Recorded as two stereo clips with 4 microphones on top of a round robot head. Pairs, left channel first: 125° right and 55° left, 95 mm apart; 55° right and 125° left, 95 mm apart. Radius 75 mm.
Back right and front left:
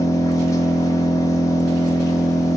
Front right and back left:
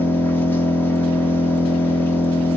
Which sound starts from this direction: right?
An engine running, at 0.0 s.